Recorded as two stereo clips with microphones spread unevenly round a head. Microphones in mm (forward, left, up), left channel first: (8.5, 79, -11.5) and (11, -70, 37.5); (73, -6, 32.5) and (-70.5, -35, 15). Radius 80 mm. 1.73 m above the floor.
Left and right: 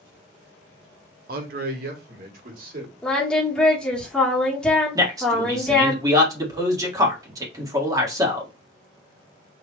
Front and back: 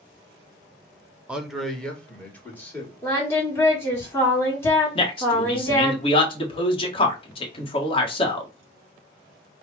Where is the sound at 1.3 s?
85° right, 0.9 m; by 2.9 s 65° right, 2.5 m.